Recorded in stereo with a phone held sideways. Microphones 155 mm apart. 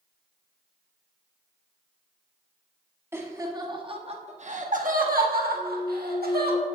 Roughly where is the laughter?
Centre.